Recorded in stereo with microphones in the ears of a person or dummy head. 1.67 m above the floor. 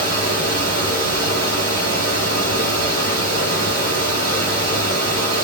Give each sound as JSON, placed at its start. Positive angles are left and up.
{"t": 0.0, "sound": "a fan", "side_deg": 20, "distance_m": 3.5}